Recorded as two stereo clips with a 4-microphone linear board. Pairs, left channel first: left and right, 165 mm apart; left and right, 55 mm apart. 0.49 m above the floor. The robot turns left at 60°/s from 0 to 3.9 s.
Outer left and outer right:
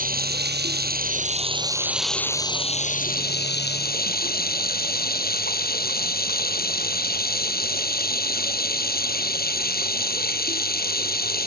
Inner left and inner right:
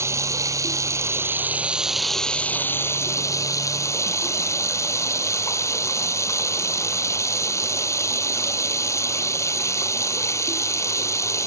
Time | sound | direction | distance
0.0 | running water | 55° right | ?